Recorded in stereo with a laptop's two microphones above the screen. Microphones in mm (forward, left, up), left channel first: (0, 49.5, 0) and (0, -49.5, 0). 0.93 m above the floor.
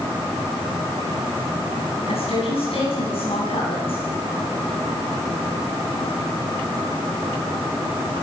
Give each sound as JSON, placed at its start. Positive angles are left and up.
{"t": 2.1, "sound": "a woman speaking", "side_deg": 75, "distance_m": 9.5}